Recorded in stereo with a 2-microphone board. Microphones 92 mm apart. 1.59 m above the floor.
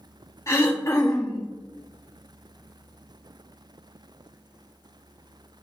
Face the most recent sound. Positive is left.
turn(degrees=35)  # may be behind; listen again after turning